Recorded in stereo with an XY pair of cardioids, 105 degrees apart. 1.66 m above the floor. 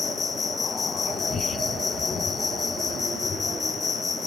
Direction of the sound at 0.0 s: 45° left.